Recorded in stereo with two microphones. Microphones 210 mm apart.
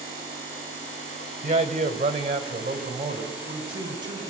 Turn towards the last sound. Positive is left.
turn(degrees=-20)  # may be behind; listen again after turning